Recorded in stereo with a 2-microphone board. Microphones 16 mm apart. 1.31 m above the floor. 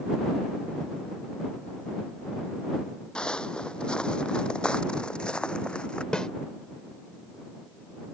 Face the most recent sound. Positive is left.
turn(degrees=55)  # may be behind; listen again after turning